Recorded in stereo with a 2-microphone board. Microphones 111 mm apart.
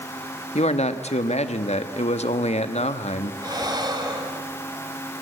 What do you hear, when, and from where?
0.6 s a man speaking: 85° left, 1.3 m
3.4 s breathing: 40° right (ahead or behind), 2 m